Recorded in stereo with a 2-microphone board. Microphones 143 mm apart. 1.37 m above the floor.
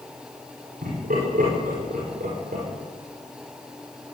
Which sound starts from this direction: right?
Laughter, at 0.8 s.